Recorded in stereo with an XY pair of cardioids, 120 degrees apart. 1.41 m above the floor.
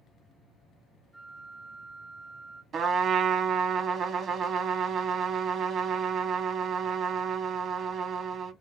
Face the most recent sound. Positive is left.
turn(degrees=-50)